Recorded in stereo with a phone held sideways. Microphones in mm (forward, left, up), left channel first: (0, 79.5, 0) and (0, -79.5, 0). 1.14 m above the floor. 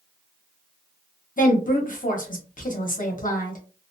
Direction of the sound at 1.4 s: 55° left (ahead or behind).